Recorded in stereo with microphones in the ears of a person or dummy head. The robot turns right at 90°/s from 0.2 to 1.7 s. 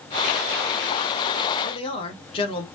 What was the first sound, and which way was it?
A man speaking, 25° left (ahead or behind).